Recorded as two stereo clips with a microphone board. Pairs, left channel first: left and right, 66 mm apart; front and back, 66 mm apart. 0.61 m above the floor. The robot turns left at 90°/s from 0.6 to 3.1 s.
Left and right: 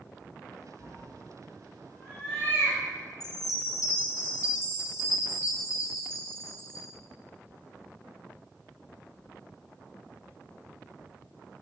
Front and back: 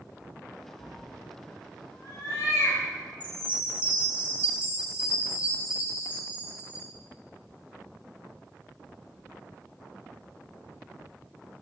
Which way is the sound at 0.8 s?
125° left.